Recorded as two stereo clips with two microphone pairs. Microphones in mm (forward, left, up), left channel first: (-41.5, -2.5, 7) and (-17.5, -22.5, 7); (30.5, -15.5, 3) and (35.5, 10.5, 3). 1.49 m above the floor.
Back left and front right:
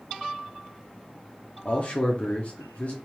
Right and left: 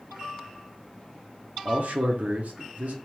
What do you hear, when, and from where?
1.6 s a man speaking: 90° left, 0.9 m